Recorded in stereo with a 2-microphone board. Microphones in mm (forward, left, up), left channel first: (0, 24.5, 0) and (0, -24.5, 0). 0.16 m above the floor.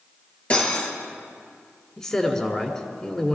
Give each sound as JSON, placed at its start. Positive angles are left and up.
{"t": 0.5, "sound": "cutlery clinking", "side_deg": 25, "distance_m": 2.0}
{"t": 2.0, "sound": "a man speaking", "side_deg": 15, "distance_m": 1.6}